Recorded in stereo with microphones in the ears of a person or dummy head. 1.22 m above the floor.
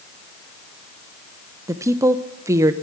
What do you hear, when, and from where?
1.7 s a woman speaking: 15° right (ahead or behind), 0.8 m